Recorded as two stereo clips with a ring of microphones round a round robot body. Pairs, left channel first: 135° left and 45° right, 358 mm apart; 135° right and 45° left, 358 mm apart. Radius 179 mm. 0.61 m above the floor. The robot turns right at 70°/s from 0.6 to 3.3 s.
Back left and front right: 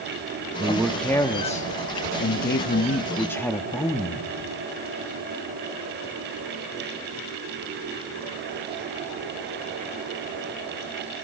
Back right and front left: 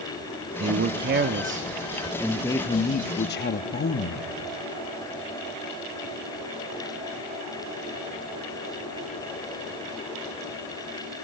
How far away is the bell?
No bell in this recording.